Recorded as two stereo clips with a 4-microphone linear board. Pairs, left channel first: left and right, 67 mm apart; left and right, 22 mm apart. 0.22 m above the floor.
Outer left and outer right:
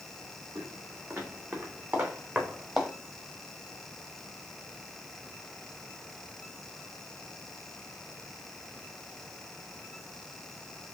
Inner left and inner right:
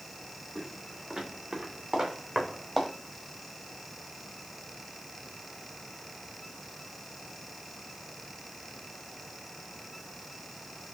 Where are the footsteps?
45° right (ahead or behind), 2.5 m; by 2.9 s 10° right (ahead or behind), 1.7 m.